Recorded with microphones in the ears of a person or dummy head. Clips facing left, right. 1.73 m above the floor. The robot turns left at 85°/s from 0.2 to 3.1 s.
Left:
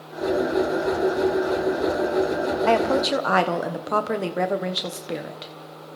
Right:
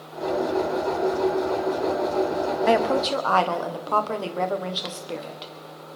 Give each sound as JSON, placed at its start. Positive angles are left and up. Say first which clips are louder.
{"t": 2.7, "sound": "a woman speaking", "louder": "left 1 dB", "azimuth_deg": -170, "distance_m": 1.4}